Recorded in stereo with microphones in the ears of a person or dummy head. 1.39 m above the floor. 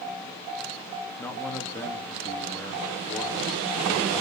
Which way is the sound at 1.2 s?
15° left (ahead or behind).